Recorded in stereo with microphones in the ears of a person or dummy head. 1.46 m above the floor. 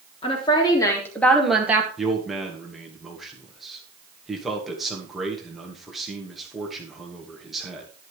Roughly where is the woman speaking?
Left.